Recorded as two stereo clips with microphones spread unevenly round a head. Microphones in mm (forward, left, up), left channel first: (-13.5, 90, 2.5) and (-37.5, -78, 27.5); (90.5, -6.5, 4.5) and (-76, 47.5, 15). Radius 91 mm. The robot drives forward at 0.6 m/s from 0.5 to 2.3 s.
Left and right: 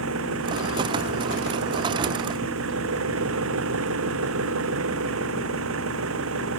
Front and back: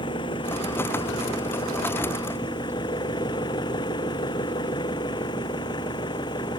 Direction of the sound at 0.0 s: 85° right.